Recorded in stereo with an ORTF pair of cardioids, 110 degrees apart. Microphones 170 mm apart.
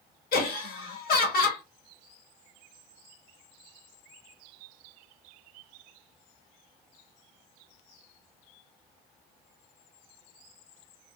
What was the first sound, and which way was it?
Laughter, 65° left.